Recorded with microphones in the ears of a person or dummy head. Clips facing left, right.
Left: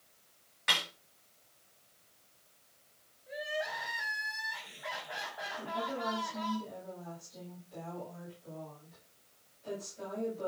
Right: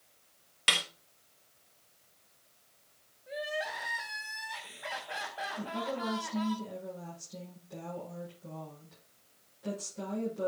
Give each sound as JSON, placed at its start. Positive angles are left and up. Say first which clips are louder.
{"t": 0.7, "sound": "a snare drum", "louder": "right 1 dB", "side_deg": -40, "distance_m": 1.4}
{"t": 3.3, "sound": "crying", "louder": "right 1 dB", "side_deg": -40, "distance_m": 2.5}
{"t": 5.6, "sound": "a woman speaking", "louder": "right 1 dB", "side_deg": -80, "distance_m": 7.5}